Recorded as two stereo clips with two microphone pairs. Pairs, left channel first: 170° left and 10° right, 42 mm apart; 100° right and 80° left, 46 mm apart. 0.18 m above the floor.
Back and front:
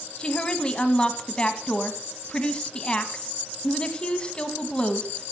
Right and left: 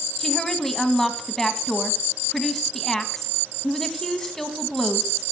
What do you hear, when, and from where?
0.2 s a woman speaking: 170° right, 1.5 m